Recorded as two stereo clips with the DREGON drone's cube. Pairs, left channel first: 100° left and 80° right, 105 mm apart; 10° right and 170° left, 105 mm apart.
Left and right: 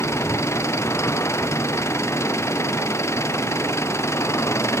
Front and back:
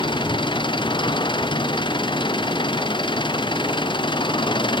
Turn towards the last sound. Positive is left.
turn(degrees=35)